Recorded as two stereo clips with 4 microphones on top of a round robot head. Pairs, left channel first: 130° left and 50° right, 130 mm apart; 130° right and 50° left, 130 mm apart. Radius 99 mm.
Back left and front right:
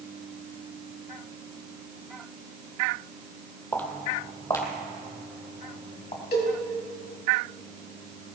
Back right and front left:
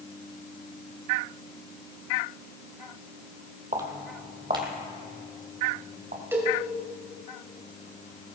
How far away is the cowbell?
About 4 m.